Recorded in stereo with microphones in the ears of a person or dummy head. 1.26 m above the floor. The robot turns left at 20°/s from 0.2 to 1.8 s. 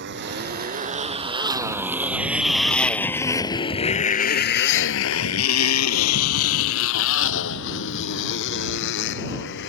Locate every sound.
0.0 s a motorcycle: 55° right (ahead or behind); by 9.7 s 65° left (ahead or behind)